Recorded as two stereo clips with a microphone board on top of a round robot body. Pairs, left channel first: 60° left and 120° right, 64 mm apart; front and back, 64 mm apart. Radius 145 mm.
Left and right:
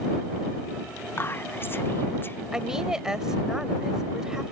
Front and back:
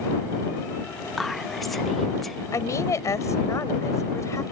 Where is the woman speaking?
40° right.